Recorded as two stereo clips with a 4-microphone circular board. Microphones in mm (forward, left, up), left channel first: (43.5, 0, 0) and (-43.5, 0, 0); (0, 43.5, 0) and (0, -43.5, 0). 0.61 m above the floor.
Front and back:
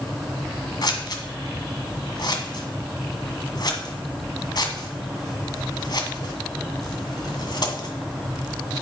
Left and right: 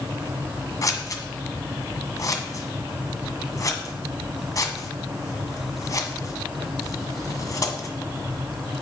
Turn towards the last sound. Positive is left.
turn(degrees=40)